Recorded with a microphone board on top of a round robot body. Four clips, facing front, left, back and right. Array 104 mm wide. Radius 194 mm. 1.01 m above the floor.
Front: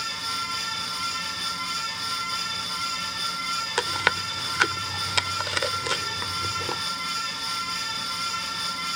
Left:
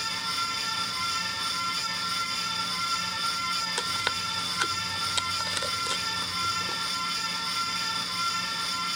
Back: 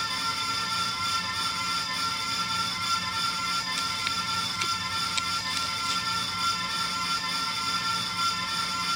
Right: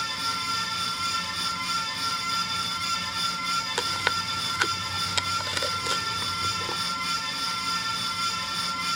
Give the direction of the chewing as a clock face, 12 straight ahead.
12 o'clock.